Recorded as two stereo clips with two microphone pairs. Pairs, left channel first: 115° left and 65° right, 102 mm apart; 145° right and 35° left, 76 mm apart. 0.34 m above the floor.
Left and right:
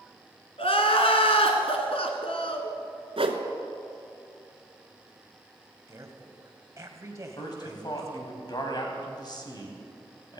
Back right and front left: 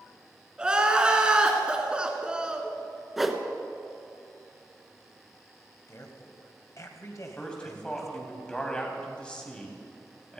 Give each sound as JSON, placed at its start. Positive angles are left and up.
{"t": 0.6, "sound": "crying", "azimuth_deg": 115, "distance_m": 1.7}
{"t": 3.2, "sound": "a whoosh", "azimuth_deg": -50, "distance_m": 1.2}
{"t": 5.9, "sound": "a woman speaking", "azimuth_deg": -120, "distance_m": 1.9}
{"t": 7.4, "sound": "a man speaking", "azimuth_deg": 145, "distance_m": 2.5}